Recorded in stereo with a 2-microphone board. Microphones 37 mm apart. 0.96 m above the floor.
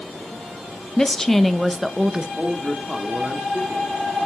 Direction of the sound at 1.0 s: 15° left (ahead or behind).